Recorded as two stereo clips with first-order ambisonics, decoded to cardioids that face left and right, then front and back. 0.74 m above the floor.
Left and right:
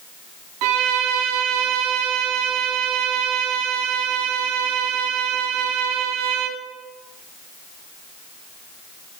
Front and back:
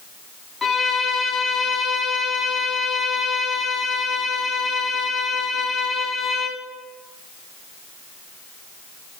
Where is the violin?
75° right, 0.6 m.